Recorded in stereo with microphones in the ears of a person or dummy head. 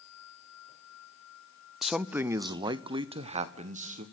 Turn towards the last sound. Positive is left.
turn(degrees=-45)  # may be behind; listen again after turning